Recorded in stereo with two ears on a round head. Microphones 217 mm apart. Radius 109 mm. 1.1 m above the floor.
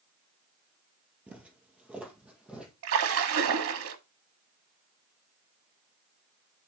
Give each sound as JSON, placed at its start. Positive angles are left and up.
{"t": 1.3, "sound": "footsteps", "side_deg": -5, "distance_m": 1.5}
{"t": 2.8, "sound": "a splash", "side_deg": -65, "distance_m": 1.5}